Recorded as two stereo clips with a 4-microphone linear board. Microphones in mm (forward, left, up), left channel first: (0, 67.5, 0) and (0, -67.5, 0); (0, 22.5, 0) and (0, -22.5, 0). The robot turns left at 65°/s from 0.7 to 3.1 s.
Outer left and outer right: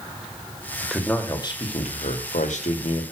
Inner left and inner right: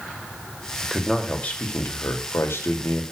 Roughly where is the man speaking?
Behind.